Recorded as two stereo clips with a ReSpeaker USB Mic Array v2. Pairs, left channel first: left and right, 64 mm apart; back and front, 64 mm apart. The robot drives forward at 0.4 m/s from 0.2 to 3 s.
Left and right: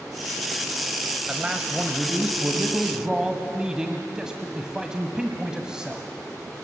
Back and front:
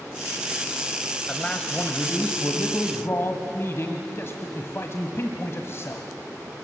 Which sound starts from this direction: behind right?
A man speaking, at 1.3 s.